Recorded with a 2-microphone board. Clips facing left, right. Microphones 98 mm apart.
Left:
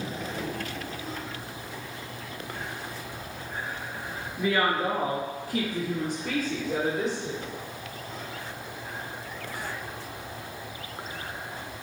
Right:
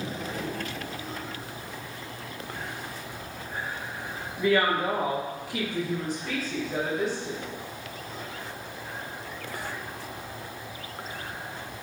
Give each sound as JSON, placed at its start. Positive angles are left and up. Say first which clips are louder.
{"t": 4.4, "sound": "a woman speaking", "louder": "right 2 dB", "side_deg": 15, "distance_m": 1.2}